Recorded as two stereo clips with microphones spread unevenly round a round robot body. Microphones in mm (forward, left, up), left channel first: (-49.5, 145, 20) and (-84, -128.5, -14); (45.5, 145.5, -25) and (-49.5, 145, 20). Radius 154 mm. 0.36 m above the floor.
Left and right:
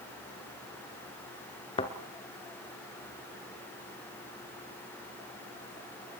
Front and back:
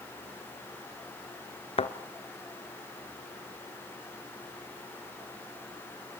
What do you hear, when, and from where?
1.8 s a thud: 10° left, 1.5 m